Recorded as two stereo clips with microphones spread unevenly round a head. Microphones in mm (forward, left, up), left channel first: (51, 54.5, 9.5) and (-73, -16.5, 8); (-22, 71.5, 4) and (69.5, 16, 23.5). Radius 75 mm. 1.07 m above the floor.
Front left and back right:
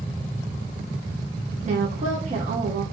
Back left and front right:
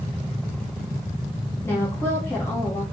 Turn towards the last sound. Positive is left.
turn(degrees=-160)